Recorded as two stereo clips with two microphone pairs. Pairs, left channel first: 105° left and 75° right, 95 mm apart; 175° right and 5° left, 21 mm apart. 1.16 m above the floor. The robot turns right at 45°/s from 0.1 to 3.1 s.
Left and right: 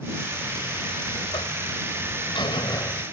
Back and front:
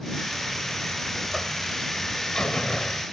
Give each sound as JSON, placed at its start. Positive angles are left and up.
{"t": 0.3, "sound": "a buzzer", "azimuth_deg": 35}